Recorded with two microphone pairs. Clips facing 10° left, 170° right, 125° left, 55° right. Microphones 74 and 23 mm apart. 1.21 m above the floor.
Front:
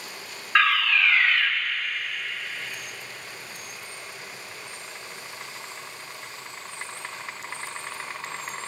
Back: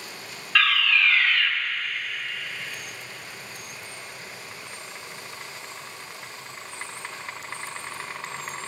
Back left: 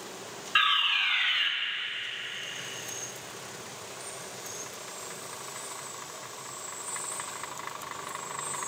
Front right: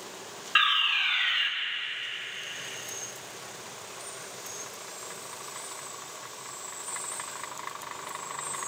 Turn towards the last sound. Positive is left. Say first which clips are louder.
# front 1 dB, front right 1 dB
turn(degrees=10)